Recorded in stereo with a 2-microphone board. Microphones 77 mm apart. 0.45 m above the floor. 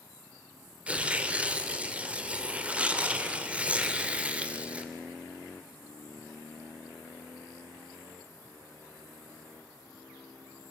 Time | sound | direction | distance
0.9 | tearing paper | 15° right (ahead or behind) | 1.7 m